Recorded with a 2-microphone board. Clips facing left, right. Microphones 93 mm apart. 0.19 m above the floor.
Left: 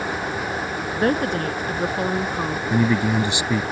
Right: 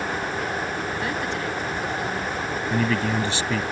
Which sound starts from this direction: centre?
A man speaking, at 2.7 s.